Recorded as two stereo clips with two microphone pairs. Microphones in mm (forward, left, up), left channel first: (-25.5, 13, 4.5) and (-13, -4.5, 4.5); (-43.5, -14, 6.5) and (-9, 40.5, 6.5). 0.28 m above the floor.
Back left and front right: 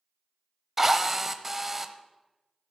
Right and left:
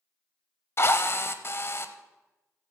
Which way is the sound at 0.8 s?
125° right.